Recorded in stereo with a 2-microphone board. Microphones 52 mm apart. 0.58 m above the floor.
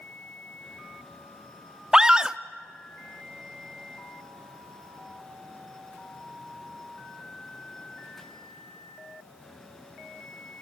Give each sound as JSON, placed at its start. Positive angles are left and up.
{"t": 1.9, "sound": "a scream", "side_deg": -15, "distance_m": 0.7}